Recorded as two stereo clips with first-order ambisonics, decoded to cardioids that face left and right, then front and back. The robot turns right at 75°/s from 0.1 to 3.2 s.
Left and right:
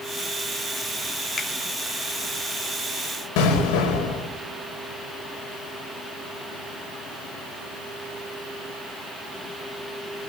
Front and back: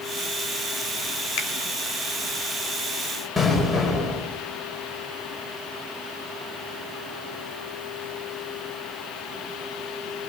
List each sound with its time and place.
1.4 s a finger snap: 20° left, 3 m; by 1.5 s 30° left, 3 m
3.4 s an explosion: 90° left, 5.5 m